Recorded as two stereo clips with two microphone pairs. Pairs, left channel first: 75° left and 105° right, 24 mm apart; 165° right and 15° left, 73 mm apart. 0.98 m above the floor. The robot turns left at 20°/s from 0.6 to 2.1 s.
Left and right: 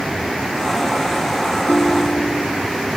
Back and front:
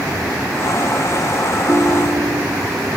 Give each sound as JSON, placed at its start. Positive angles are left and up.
{"t": 1.7, "sound": "a ringtone", "azimuth_deg": 80}